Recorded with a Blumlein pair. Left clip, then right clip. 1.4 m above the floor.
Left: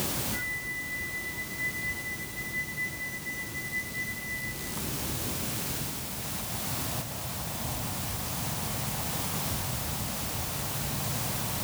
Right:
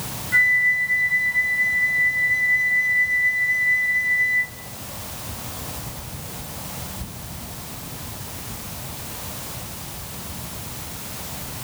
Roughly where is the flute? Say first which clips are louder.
Right 22 dB; ahead right.